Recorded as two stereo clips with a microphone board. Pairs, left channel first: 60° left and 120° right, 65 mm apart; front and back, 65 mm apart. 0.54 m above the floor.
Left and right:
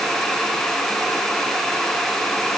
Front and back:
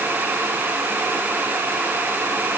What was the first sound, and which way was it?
Only background noise.